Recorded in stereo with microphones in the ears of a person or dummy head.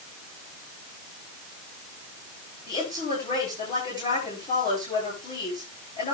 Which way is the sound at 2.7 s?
25° left (ahead or behind).